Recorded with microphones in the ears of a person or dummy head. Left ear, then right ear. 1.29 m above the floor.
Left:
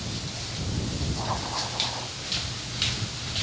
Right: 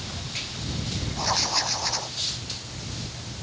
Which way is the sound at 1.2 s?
70° right (ahead or behind).